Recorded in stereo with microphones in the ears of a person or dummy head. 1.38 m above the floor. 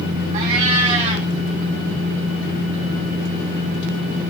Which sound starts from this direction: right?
A cat meowing, at 0.3 s.